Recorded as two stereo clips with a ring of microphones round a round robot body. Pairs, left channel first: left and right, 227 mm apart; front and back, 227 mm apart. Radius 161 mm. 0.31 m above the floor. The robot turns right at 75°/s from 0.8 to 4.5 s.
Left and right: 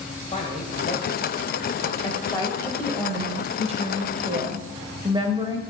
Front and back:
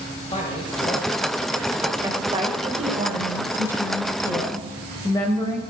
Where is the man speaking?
50° left, 1.6 m; by 1.9 s 135° left, 1.6 m.